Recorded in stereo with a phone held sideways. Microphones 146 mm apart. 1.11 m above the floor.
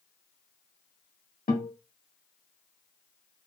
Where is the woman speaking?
No woman speaking in this recording.